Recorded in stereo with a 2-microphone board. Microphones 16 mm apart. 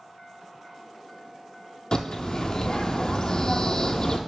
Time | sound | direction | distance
1.9 | a bird | 45° left (ahead or behind) | 0.6 m